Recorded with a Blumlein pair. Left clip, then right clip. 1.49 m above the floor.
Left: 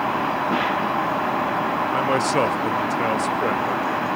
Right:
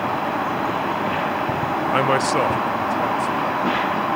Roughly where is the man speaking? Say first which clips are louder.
Right 3 dB; ahead right.